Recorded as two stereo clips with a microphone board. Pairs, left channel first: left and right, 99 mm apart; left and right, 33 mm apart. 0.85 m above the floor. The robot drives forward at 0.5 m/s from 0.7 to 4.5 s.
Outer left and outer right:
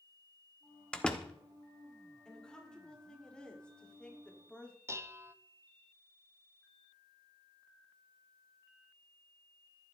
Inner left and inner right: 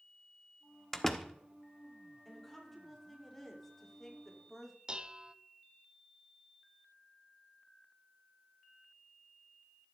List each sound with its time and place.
0.9 s a door slam: 10° left (ahead or behind), 1.0 m
2.2 s a woman speaking: 10° left (ahead or behind), 3 m
4.9 s dishes clattering: 25° right (ahead or behind), 0.6 m